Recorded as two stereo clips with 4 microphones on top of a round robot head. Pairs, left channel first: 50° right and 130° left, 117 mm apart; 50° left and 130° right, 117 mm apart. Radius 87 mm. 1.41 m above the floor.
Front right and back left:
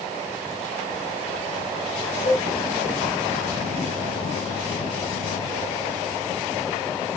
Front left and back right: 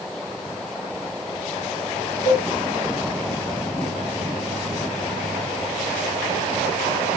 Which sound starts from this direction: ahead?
A cowbell, at 2.2 s.